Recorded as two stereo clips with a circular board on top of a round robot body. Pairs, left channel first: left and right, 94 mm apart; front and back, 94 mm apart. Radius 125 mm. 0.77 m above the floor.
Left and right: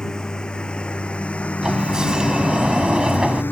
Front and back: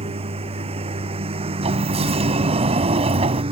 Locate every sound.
0.0 s a lawn mower: 170° left; by 3.5 s 160° left
1.6 s a sliding door: 175° right